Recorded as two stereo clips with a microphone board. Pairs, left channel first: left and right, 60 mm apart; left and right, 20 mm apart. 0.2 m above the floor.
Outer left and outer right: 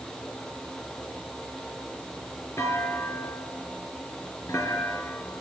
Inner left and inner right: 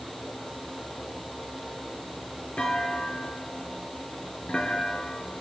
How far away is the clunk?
About 4 m.